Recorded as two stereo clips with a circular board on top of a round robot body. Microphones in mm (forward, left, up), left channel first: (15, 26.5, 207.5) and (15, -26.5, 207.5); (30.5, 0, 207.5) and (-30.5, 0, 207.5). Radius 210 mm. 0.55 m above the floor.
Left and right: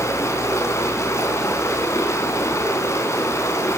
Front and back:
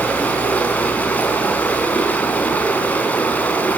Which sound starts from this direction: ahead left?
Running water, at 0.0 s.